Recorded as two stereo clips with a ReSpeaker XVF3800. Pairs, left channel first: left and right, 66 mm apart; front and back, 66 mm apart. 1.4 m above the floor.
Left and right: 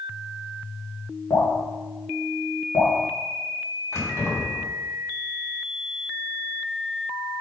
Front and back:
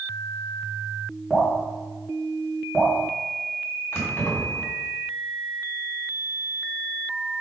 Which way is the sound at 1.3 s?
80° left.